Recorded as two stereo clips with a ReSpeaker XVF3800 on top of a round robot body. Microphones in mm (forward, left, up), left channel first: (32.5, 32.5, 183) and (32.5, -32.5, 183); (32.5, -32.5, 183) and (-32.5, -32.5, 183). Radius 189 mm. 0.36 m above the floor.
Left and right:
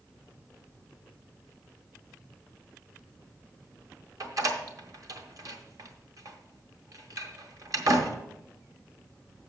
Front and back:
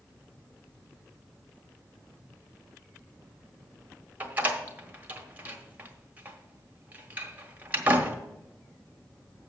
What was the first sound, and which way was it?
A door slam, 115° right.